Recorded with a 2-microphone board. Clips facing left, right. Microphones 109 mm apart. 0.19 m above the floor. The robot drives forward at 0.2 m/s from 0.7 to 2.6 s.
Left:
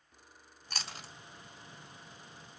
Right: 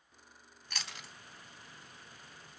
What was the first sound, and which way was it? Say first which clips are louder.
Chewing: left 2 dB; 30° left (ahead or behind).